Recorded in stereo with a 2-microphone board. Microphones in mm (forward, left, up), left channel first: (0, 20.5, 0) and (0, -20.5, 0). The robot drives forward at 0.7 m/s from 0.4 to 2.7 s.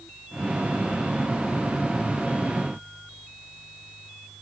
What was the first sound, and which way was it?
Only background noise.